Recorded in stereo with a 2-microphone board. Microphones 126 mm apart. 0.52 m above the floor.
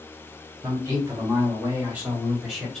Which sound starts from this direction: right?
A man speaking, at 0.6 s.